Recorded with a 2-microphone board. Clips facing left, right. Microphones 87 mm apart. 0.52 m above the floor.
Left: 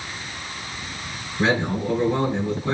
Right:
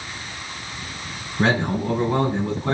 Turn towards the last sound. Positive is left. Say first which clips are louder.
# right 1 dB
turn(degrees=-50)  # may be behind; listen again after turning